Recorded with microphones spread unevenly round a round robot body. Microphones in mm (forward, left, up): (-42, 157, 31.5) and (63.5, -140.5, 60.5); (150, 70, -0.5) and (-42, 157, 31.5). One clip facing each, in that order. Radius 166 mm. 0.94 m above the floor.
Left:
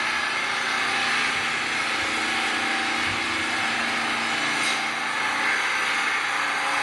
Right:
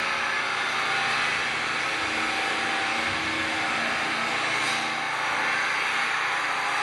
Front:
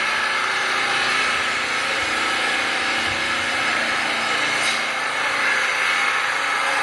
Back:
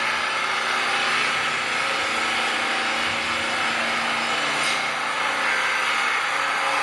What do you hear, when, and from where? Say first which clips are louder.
0.0 s an engine running: even, front 1 dB; 50° left, 1.8 m